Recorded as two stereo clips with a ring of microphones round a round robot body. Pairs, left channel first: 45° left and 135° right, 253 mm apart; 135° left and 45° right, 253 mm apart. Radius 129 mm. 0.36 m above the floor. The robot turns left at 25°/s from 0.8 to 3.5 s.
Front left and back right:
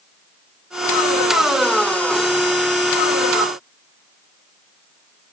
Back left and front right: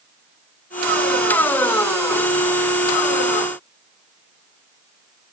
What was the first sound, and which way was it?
Only background noise.